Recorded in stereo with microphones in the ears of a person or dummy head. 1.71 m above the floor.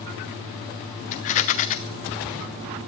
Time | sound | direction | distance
1.1 | a rattle | 30° left (ahead or behind) | 0.7 m